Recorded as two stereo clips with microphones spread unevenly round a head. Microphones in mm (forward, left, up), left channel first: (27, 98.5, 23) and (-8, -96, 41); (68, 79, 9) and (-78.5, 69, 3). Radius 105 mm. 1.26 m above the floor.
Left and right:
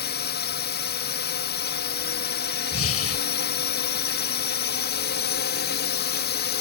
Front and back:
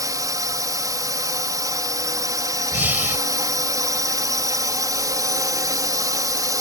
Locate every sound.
0.0 s a drone: 120° left
2.7 s breathing: 105° left